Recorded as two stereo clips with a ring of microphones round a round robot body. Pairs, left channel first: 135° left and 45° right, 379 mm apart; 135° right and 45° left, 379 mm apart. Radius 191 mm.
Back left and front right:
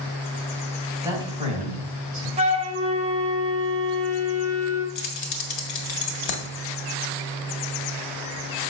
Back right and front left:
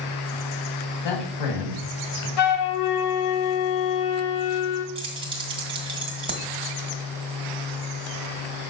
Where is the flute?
115° right, 1.3 m.